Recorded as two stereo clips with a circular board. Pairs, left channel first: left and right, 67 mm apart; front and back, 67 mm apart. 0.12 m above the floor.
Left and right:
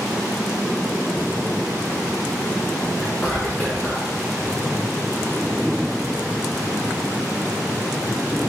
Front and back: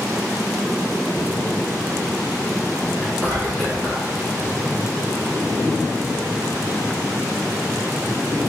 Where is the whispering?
125° left, 1.6 m.